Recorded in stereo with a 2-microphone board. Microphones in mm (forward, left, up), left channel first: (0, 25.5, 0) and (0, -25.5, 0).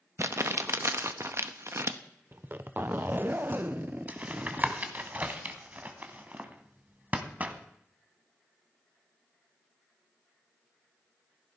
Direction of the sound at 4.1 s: 30° right (ahead or behind).